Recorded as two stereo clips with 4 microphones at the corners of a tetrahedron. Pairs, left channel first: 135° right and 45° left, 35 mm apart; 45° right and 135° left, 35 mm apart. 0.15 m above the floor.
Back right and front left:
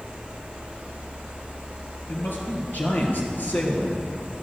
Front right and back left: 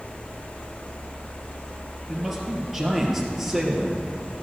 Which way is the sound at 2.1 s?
140° right.